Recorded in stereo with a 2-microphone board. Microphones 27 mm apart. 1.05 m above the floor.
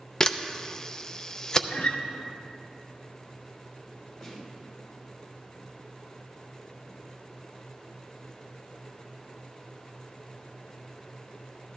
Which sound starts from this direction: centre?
A snare drum, at 4.2 s.